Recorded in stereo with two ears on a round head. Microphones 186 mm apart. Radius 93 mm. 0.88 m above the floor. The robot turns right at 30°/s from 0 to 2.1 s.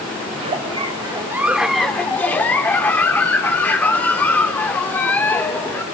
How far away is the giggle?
About 0.6 m.